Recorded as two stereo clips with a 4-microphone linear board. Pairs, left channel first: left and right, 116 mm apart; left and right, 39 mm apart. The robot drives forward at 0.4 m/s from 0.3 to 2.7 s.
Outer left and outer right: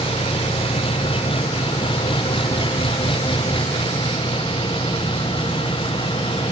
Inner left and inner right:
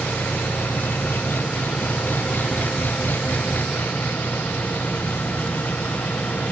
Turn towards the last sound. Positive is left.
turn(degrees=50)  # may be behind; listen again after turning